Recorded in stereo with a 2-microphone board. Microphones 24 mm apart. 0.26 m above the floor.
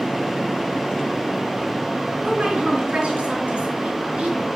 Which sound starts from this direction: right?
A woman speaking, at 2.2 s.